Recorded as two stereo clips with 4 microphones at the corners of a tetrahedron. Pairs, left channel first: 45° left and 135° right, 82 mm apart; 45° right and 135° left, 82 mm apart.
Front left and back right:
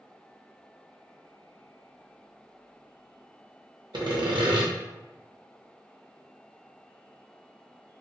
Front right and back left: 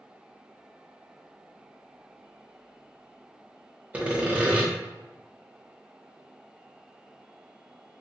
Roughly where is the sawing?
Behind right.